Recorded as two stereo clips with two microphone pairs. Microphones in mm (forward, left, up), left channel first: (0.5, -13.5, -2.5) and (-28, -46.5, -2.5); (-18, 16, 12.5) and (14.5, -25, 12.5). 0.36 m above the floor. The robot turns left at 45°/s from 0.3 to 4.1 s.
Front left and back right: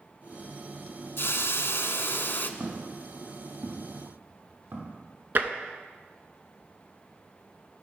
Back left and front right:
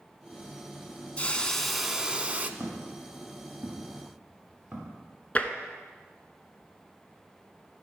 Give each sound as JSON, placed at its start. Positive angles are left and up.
{"t": 1.2, "sound": "a hiss", "azimuth_deg": 65, "distance_m": 0.5}
{"t": 2.6, "sound": "footsteps", "azimuth_deg": -90, "distance_m": 3.0}
{"t": 5.3, "sound": "tapping", "azimuth_deg": -170, "distance_m": 0.8}